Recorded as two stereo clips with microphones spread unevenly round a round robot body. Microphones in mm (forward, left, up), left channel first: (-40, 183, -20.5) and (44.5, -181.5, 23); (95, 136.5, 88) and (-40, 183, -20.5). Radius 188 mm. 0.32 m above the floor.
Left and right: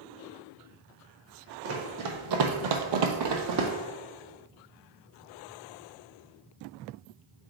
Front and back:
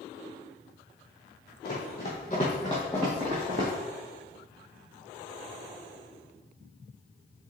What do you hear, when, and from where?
1.6 s running footsteps: 25° right, 1.1 m; by 3.7 s 120° right, 0.9 m